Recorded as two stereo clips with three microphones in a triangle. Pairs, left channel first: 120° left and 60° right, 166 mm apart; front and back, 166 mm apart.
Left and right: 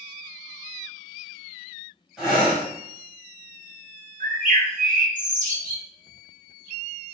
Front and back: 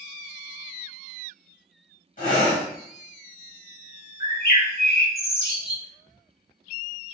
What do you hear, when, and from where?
2.2 s breathing: 25° left, 1.6 m
4.2 s a bird: 20° right, 0.9 m